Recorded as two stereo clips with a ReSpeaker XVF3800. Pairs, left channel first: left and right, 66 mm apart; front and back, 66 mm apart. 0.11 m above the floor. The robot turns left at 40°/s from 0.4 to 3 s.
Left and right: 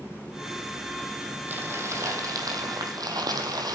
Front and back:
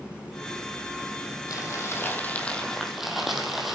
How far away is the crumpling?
About 2.5 m.